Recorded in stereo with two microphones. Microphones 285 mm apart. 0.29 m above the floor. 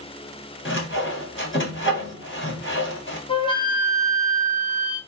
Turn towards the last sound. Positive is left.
turn(degrees=15)  # may be behind; listen again after turning